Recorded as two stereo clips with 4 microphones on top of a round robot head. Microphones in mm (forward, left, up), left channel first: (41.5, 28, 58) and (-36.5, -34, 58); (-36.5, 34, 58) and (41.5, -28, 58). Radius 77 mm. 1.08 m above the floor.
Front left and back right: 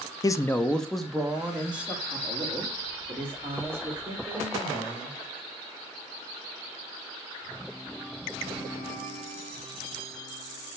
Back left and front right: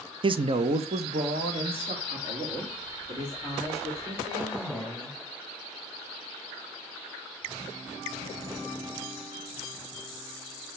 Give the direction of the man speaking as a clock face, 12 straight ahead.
12 o'clock.